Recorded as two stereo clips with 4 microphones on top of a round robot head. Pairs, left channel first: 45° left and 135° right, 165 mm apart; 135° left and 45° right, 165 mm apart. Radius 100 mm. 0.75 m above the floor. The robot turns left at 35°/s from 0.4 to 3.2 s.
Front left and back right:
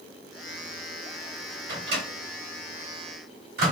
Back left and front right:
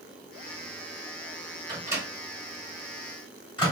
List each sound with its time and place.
1.7 s a microwave: 110° right, 1.5 m; by 3.7 s 165° right, 1.5 m